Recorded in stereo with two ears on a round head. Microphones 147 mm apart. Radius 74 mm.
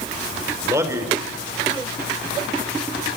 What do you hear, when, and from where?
0.6 s a man speaking: 15° right (ahead or behind), 4 m